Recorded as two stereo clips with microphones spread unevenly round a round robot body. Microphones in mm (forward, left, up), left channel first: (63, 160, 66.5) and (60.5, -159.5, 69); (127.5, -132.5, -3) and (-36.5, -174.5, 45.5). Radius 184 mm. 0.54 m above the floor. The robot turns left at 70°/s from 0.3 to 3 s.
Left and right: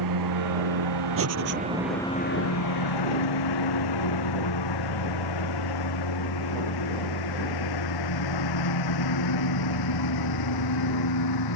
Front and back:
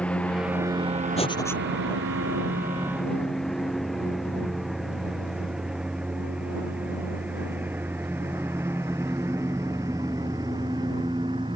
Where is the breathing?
40° right; by 1.6 s 70° right.